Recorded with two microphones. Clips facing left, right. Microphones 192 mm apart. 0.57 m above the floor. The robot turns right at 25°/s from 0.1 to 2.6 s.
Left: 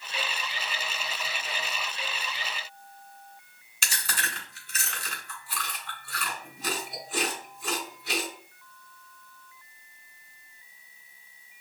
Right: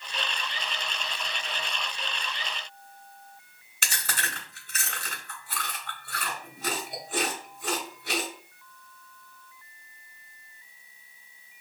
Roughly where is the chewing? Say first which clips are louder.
Right 1 dB; right.